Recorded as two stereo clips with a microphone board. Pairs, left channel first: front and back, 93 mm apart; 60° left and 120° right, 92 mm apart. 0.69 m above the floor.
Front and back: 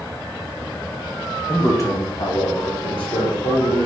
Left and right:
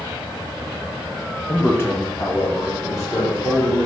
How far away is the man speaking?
About 0.6 m.